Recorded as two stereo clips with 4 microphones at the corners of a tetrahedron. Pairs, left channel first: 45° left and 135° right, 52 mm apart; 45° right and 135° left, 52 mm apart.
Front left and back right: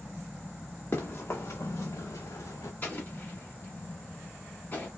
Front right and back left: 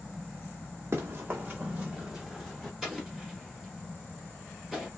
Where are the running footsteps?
90° left, 1.2 m; by 2.7 s 40° left, 1.2 m.